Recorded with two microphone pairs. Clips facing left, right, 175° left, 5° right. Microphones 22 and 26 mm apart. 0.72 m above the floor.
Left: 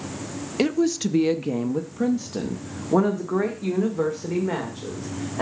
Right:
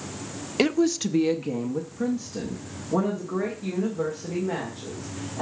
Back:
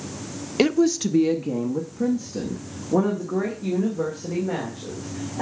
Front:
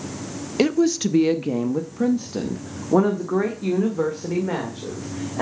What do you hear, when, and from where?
0.6 s a woman speaking: 130° right, 0.5 m; by 5.4 s 30° left, 2.5 m